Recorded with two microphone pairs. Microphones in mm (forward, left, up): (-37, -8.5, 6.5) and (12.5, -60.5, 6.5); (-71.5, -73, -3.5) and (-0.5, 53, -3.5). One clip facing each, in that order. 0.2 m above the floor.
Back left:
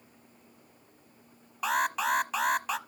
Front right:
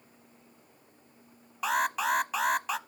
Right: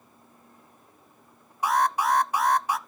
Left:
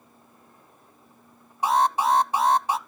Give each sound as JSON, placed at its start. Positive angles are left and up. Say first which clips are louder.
{"t": 1.6, "sound": "an alarm", "louder": "even, left 2 dB", "azimuth_deg": 40, "distance_m": 0.7}